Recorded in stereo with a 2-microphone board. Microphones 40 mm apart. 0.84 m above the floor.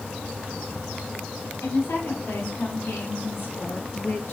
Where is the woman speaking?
65° left (ahead or behind), 8 m; by 4.3 s 75° left (ahead or behind), 6.5 m.